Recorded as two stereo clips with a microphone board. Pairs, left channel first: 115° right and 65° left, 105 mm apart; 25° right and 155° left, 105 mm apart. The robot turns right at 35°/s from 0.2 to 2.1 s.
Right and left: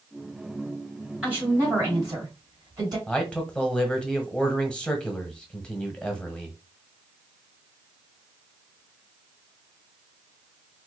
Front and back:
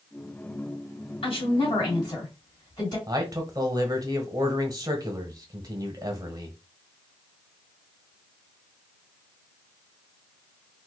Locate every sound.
1.2 s a woman speaking: 10° right, 3 m; by 3.0 s 20° left, 3 m
3.1 s a man speaking: 170° left, 1.0 m